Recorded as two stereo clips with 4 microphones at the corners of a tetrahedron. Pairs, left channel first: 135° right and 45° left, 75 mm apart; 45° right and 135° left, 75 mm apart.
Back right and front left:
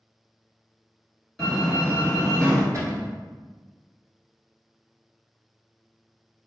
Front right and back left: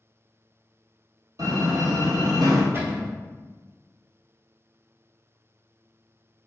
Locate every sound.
1.4 s a door slam: 145° left, 1.6 m
2.7 s a cupboard door: 85° left, 0.9 m